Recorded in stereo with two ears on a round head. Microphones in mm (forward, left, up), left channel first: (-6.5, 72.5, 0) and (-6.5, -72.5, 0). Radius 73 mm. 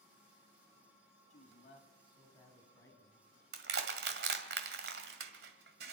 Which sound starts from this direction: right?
Crushing, at 3.5 s.